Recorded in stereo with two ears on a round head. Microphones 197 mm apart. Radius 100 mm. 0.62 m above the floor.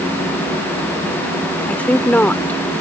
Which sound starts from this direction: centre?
A woman speaking, at 1.7 s.